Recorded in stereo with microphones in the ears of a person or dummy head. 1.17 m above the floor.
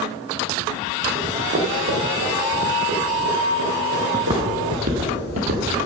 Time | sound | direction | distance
1.1 | running footsteps | 35° right (ahead or behind) | 3.5 m
4.1 | footsteps | 15° right (ahead or behind) | 1.1 m